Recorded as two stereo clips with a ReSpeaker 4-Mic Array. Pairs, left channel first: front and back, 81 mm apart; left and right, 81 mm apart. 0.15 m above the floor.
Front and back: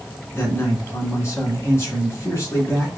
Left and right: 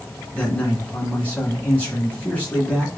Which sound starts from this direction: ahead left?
A man speaking, at 0.3 s.